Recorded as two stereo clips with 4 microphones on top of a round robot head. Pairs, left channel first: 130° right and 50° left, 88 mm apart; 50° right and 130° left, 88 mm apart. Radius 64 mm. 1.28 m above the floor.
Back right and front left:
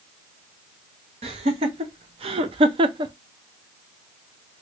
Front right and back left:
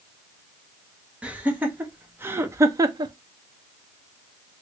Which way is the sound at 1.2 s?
55° left.